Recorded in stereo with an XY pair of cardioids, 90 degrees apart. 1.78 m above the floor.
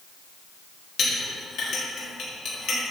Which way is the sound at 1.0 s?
70° left.